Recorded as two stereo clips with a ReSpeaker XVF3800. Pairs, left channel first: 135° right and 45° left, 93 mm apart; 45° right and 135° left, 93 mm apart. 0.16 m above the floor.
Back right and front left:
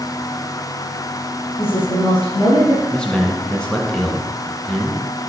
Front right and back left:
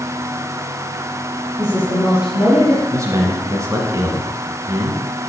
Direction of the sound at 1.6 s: 140° right.